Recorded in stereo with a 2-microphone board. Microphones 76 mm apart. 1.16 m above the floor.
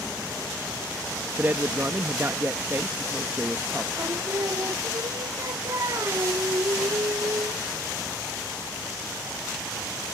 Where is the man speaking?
30° right (ahead or behind).